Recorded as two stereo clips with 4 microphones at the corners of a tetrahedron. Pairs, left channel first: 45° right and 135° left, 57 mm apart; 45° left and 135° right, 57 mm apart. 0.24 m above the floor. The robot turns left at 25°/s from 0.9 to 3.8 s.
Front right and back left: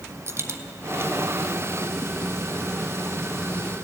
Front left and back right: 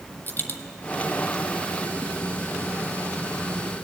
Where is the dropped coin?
100° left, 0.8 m.